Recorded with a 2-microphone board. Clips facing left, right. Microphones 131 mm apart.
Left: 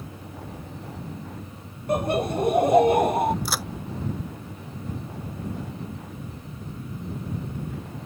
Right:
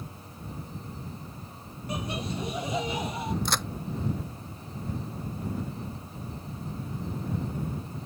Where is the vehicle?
80° left; by 8.1 s 85° left.